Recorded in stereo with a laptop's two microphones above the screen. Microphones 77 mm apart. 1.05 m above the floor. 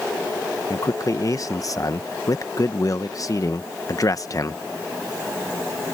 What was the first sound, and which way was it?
A man speaking, 45° left (ahead or behind).